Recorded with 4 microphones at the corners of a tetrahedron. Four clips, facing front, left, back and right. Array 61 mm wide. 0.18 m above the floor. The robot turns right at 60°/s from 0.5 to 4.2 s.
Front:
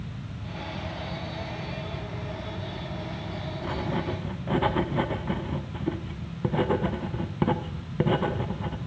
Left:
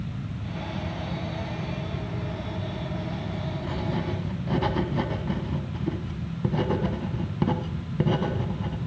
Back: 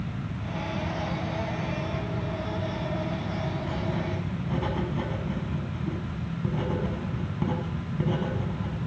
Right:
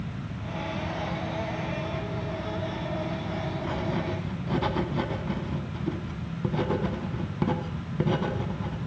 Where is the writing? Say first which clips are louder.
Left 1 dB, front 1 dB; 35° right, 0.7 m; by 8.8 s straight ahead, 0.7 m.